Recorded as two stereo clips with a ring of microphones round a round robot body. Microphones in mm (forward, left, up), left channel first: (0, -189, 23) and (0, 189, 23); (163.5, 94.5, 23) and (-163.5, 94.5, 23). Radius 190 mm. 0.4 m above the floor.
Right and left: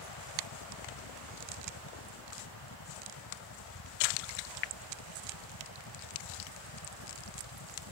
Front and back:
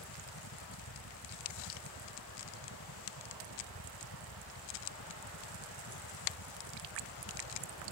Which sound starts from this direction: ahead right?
A helicopter, at 0.0 s.